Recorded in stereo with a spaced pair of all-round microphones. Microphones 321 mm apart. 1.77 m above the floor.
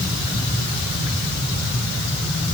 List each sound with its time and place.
Only background noise.